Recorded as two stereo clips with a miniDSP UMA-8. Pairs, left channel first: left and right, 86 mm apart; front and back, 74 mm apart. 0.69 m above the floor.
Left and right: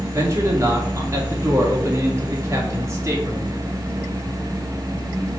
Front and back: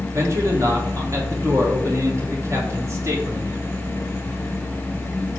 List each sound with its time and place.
0.1 s a man speaking: 140° right, 1.9 m